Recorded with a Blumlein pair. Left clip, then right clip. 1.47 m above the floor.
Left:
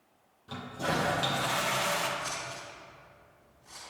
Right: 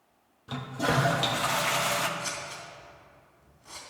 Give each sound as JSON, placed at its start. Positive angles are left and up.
{"t": 0.5, "sound": "a toilet flushing", "azimuth_deg": -15, "distance_m": 1.0}
{"t": 2.2, "sound": "scissors", "azimuth_deg": -25, "distance_m": 3.0}